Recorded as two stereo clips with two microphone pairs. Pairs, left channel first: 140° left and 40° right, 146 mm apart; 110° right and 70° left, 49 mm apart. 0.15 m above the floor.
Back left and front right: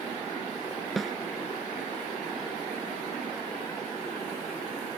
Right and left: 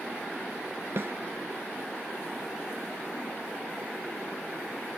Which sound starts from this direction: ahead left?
A snare drum, at 1.0 s.